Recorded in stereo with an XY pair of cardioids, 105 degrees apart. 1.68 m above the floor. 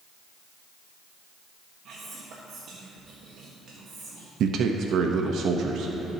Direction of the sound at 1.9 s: 65° right.